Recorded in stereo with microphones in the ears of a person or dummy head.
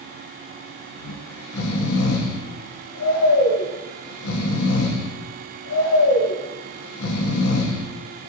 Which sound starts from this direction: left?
Snoring, at 1.0 s.